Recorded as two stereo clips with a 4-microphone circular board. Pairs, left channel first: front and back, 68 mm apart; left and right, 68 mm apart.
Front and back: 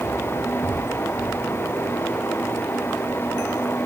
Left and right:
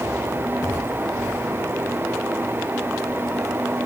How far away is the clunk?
I don't hear a clunk.